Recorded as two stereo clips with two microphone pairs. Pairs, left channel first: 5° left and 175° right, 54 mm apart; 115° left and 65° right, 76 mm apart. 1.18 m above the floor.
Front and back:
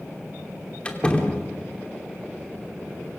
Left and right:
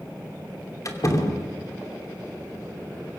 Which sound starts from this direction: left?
A door slam, at 0.8 s.